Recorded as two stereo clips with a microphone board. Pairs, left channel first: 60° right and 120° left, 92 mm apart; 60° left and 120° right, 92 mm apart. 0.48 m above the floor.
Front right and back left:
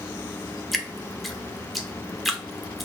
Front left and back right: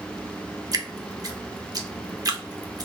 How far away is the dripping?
About 0.5 m.